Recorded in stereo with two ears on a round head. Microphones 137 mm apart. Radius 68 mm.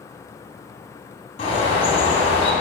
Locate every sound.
1.4 s a bird: 40° left (ahead or behind), 2.5 m